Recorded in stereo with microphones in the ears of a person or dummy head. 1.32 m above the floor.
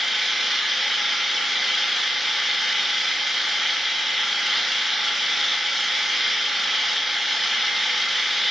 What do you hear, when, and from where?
0.0 s an engine running: centre (ahead or behind), 0.9 m